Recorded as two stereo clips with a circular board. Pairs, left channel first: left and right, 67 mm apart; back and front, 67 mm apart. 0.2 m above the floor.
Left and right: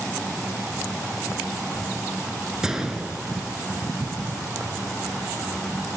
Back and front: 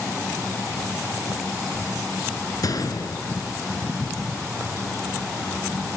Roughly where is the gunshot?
Behind.